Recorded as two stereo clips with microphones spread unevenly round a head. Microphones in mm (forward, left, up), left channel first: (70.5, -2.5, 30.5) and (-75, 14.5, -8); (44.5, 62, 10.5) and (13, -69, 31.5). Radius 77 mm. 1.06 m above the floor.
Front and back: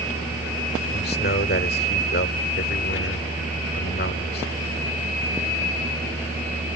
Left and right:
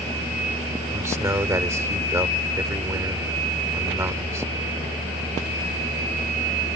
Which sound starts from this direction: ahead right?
A man speaking, at 0.9 s.